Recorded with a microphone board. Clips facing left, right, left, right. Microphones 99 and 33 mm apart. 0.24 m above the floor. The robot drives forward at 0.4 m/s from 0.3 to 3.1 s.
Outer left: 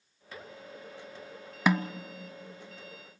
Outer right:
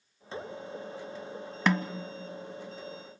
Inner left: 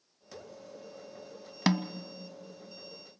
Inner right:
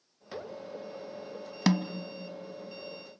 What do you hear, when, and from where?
1.7 s a snare drum: 5° left (ahead or behind), 0.6 m; by 1.9 s 10° left (ahead or behind), 0.5 m